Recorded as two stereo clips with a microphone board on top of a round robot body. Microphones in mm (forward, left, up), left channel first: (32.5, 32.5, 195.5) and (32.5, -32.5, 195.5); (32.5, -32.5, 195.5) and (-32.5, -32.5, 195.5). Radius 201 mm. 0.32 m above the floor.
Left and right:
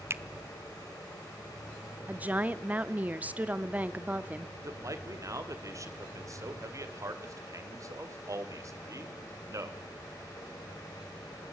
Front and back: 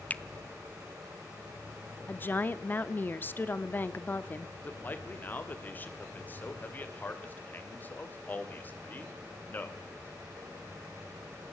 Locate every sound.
0.1 s a finger snap: 60° right, 0.9 m
2.1 s a woman speaking: 40° right, 1.1 m
4.6 s a man speaking: 60° right, 2.5 m